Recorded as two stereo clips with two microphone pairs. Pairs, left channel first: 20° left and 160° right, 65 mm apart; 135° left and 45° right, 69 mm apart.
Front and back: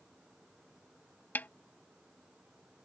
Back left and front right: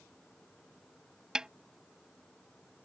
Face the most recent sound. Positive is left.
turn(degrees=20)